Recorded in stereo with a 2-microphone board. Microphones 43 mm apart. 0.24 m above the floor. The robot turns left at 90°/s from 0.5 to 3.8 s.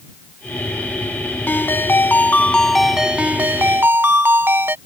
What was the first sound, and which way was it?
A ringtone, 120° left.